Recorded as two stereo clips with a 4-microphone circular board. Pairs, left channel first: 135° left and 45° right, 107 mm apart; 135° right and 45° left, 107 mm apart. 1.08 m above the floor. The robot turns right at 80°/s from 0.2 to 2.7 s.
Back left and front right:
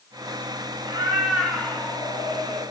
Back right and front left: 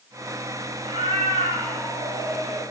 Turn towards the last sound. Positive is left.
turn(degrees=145)